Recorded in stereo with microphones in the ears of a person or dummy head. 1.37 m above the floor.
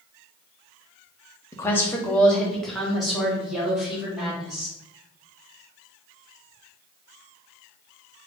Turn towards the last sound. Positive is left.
turn(degrees=-5)  # may be behind; listen again after turning